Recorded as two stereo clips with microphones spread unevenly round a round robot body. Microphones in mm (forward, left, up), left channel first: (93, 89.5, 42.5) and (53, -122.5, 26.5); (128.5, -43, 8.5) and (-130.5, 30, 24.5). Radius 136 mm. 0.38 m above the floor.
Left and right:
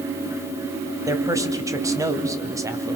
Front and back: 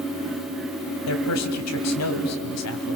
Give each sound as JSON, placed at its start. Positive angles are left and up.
{"t": 1.1, "sound": "a man speaking", "azimuth_deg": -30, "distance_m": 2.5}